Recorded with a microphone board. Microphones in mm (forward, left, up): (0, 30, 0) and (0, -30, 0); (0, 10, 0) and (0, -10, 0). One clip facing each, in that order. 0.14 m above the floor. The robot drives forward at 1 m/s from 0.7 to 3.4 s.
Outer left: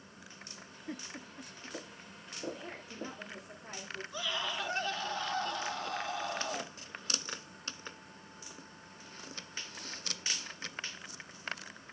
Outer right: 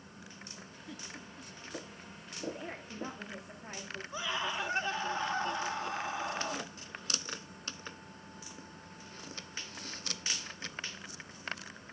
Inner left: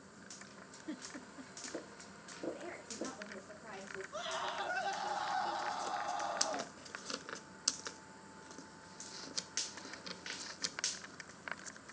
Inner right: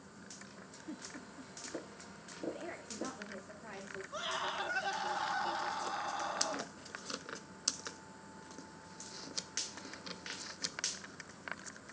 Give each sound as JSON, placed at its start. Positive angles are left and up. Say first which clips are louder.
{"t": 0.9, "sound": "a giggle", "louder": "outer left 4 dB, inner left 1 dB", "side_deg": 35, "distance_m": 0.7}
{"t": 2.5, "sound": "a woman speaking", "louder": "outer right 2 dB, inner right 1 dB", "side_deg": -40, "distance_m": 10.0}
{"t": 4.1, "sound": "a scream", "louder": "outer right 2 dB, inner right 2 dB", "side_deg": -25, "distance_m": 1.5}